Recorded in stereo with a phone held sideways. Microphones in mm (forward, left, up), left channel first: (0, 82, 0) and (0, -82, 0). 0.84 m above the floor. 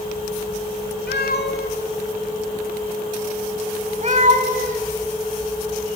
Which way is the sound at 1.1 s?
85° left.